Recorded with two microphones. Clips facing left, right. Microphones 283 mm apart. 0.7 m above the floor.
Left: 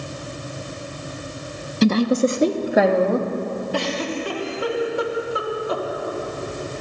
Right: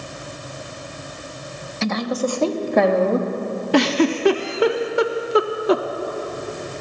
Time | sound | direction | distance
1.8 | a woman speaking | 40° left (ahead or behind) | 0.7 m
3.7 | a giggle | 85° right | 0.6 m